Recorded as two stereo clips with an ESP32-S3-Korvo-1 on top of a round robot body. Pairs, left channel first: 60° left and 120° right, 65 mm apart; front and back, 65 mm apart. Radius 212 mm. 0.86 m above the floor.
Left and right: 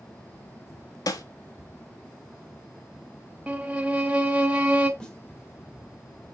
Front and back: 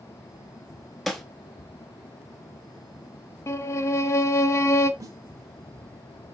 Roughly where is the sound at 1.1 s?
Left.